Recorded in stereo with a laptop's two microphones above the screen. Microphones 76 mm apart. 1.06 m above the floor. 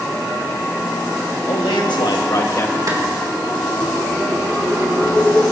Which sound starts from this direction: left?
A man speaking, at 1.5 s.